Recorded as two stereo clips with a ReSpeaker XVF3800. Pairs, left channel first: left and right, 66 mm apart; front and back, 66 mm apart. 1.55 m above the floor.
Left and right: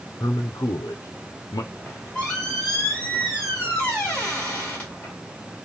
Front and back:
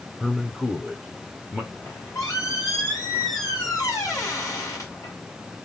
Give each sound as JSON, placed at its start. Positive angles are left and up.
{"t": 0.2, "sound": "a man speaking", "azimuth_deg": 85, "distance_m": 0.6}
{"t": 1.7, "sound": "a squeak", "azimuth_deg": 20, "distance_m": 2.0}